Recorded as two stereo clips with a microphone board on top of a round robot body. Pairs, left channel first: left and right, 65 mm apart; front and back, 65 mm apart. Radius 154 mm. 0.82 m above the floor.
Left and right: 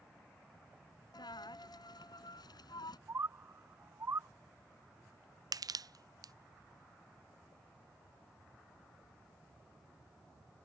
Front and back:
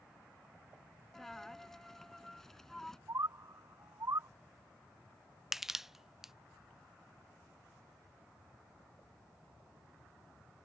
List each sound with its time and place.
1.1 s a dropped coin: 85° left
3.1 s a bird: 140° right
5.5 s crushing: 95° right